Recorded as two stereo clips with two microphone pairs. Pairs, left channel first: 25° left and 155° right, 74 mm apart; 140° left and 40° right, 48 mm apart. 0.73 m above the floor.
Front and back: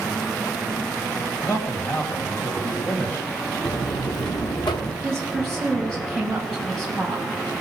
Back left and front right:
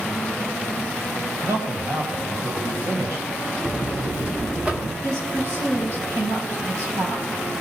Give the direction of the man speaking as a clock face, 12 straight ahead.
1 o'clock.